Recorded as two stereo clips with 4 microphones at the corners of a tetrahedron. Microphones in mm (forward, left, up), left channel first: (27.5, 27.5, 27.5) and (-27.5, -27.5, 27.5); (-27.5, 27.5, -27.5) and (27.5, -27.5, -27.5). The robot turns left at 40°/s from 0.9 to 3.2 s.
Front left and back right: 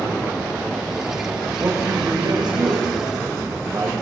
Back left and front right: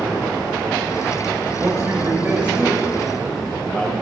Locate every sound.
1.6 s a man speaking: 85° right, 3 m; by 3.9 s 150° right, 3 m